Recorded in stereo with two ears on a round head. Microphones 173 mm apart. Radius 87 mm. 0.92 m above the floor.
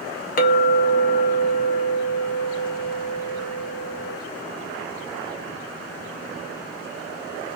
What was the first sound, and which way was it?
A clink, 45° left (ahead or behind).